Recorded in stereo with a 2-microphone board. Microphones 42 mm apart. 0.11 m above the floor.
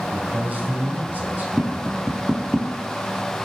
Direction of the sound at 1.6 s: 20° right (ahead or behind).